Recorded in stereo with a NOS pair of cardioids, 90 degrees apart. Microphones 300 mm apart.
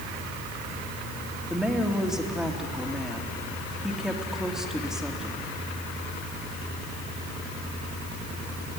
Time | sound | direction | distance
1.5 | a woman speaking | straight ahead | 2.5 m